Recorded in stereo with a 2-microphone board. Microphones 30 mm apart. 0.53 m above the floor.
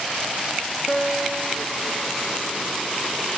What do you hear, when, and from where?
0.9 s a guitar: 35° left (ahead or behind), 1.5 m